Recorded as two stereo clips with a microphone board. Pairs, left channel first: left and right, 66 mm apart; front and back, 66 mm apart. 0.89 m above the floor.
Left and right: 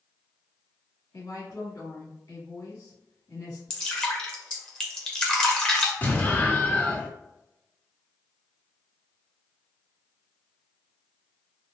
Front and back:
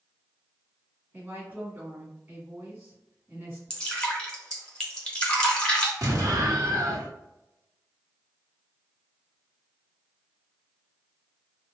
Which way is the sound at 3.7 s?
40° left.